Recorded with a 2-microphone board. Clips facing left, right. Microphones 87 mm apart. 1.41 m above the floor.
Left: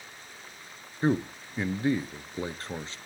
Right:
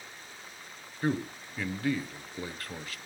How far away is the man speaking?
About 0.6 m.